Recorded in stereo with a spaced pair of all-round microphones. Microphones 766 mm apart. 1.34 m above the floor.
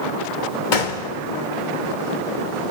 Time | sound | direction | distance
0.7 | a gunshot | 80° left | 2.0 m